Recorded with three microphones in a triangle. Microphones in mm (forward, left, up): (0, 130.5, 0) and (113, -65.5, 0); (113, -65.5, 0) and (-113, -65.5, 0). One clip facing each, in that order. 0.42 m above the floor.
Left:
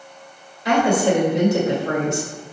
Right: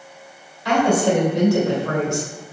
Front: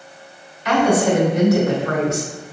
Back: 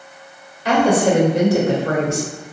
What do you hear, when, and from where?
0.7 s a woman speaking: straight behind, 1.9 m